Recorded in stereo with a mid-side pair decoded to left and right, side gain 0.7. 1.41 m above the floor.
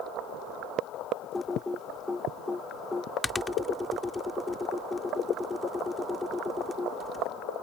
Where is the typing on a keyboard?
15° left.